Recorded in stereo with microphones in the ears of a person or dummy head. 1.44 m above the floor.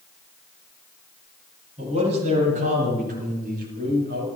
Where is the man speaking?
40° right (ahead or behind), 9.5 m; by 4.3 s 60° right (ahead or behind), 7.5 m.